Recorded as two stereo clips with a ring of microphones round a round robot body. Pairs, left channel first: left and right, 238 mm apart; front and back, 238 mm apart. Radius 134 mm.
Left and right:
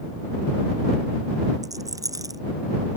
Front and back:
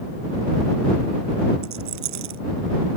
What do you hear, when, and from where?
1.6 s a rattle: 165° right